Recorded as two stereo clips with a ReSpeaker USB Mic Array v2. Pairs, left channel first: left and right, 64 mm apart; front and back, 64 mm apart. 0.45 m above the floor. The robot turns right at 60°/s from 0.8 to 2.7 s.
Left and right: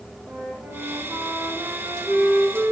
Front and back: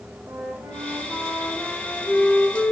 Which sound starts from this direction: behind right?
A flute, at 0.3 s.